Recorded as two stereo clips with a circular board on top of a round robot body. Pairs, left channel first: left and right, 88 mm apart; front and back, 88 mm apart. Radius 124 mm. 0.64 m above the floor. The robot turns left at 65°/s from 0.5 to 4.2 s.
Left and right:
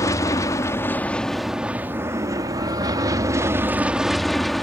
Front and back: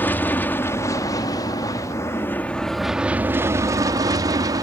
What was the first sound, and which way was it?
An aircraft, 60° left.